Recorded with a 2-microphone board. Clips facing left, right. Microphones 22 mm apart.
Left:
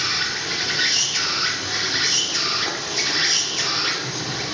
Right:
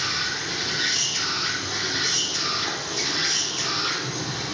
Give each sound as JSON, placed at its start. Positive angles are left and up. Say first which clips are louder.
{"t": 0.0, "sound": "an insect", "louder": "left 3 dB", "side_deg": 25, "distance_m": 2.5}